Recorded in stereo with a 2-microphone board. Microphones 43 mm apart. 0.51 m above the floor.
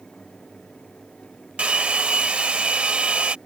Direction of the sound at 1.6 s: 25° right (ahead or behind).